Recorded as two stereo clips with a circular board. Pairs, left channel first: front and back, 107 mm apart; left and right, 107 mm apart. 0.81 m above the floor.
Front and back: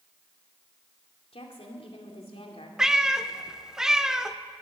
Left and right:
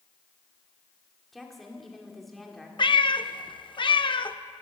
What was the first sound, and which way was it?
A woman speaking, straight ahead.